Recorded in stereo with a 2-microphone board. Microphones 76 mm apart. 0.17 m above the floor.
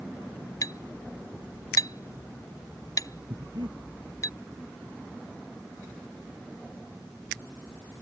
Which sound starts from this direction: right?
Breathing, at 3.3 s.